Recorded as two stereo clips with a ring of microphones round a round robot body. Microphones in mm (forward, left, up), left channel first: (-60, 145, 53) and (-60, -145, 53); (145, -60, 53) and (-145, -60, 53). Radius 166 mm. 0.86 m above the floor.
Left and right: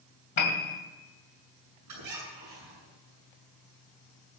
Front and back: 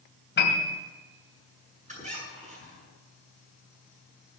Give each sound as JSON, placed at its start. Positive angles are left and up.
{"t": 0.4, "sound": "a piano", "azimuth_deg": 60, "distance_m": 2.5}
{"t": 1.9, "sound": "a squeak", "azimuth_deg": -115, "distance_m": 8.0}